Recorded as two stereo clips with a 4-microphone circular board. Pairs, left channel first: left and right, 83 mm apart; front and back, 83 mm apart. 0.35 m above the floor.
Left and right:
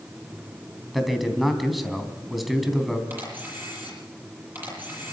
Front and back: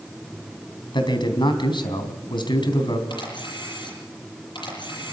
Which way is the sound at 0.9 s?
Straight ahead.